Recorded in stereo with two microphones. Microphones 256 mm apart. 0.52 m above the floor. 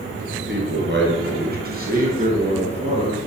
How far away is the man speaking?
About 6.5 m.